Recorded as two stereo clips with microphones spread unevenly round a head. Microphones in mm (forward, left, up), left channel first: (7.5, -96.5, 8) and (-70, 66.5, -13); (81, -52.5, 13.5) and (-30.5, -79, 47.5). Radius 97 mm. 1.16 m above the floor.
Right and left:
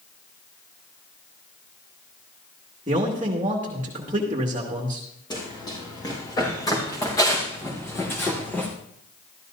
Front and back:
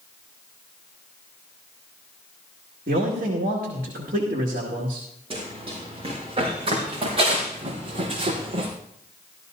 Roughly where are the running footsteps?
Behind right.